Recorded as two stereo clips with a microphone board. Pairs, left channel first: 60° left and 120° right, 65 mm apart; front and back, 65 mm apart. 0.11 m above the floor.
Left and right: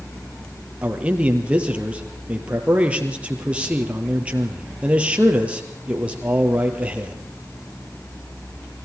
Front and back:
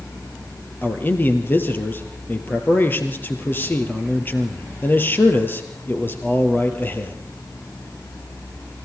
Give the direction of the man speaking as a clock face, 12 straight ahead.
2 o'clock.